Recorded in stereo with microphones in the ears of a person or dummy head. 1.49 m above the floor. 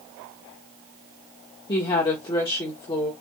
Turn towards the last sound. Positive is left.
turn(degrees=30)  # may be behind; listen again after turning